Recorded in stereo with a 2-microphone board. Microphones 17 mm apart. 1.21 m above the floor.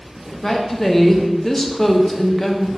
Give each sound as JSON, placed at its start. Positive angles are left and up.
{"t": 0.4, "sound": "a woman speaking", "side_deg": 15, "distance_m": 0.5}